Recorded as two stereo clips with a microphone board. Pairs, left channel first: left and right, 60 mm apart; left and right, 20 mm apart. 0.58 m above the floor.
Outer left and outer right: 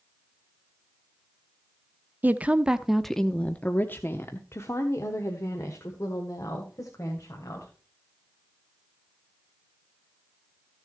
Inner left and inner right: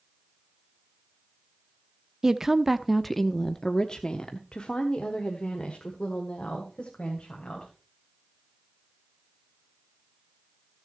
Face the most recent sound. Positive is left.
turn(degrees=60)  # may be behind; listen again after turning